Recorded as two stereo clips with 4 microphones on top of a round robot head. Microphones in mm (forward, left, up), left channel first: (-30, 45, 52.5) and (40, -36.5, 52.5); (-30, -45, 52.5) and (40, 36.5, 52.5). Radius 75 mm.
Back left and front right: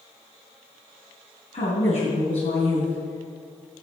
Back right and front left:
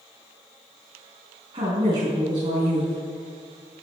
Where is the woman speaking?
95° left, 4.5 m.